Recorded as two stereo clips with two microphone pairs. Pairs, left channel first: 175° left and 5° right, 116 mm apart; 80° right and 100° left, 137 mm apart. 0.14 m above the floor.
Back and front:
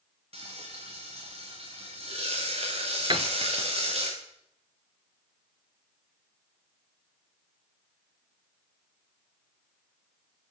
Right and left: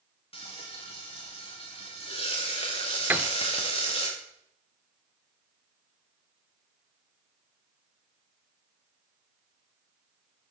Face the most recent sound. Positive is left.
turn(degrees=25)